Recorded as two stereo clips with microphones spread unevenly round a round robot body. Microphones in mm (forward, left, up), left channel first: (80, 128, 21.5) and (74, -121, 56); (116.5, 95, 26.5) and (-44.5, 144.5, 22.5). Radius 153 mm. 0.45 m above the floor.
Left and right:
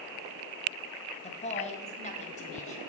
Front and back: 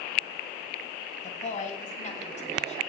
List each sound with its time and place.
1.2 s a woman speaking: 30° left, 3.5 m